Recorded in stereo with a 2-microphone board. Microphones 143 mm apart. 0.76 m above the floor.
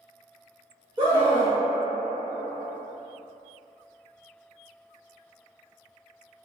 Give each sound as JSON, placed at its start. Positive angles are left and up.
{"t": 1.0, "sound": "a scream", "side_deg": -35, "distance_m": 0.7}